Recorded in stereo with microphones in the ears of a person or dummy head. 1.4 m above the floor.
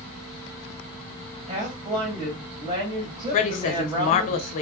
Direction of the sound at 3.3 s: 40° left (ahead or behind).